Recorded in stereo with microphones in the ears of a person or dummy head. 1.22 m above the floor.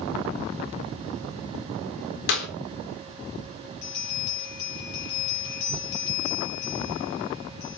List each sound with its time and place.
2.3 s a clap: 70° left (ahead or behind), 3.5 m
3.8 s a bell: 60° left (ahead or behind), 7 m